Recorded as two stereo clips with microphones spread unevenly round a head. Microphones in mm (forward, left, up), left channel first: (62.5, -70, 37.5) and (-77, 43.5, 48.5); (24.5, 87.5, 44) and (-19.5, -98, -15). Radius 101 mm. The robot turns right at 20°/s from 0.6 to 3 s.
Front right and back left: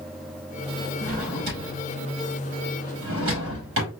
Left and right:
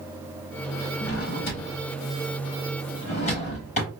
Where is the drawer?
95° left, 3.5 m; by 3.9 s 135° left, 3.5 m.